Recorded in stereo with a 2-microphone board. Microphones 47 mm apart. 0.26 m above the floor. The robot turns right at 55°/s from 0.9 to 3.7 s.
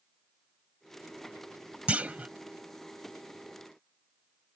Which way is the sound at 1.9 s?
25° right (ahead or behind).